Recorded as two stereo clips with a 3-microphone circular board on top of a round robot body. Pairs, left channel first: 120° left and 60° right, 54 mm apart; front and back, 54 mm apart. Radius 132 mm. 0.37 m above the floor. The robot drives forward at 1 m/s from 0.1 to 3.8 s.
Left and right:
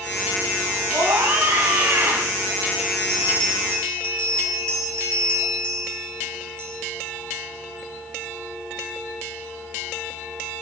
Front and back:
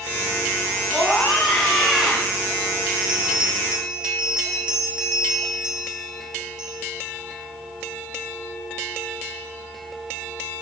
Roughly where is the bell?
Right.